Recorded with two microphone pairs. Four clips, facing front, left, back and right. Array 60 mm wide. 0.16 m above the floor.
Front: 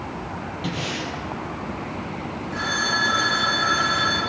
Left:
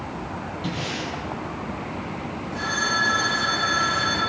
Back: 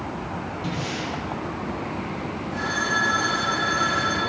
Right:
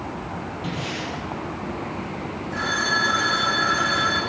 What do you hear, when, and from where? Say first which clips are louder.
0.6 s breathing: left 1 dB, front 2 dB; 5° right, 4.5 m
2.5 s a phone ringing: right 1 dB, even; 60° right, 6.5 m